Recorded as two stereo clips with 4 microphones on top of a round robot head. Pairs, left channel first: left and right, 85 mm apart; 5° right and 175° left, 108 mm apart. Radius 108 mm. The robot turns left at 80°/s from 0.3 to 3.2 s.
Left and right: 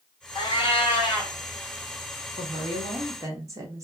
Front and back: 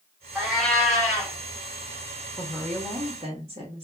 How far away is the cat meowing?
About 2.0 m.